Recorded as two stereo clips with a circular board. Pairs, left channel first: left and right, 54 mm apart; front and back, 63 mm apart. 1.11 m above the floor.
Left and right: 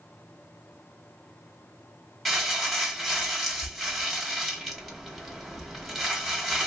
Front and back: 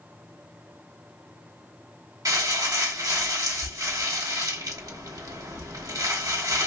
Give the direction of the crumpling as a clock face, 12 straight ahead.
6 o'clock.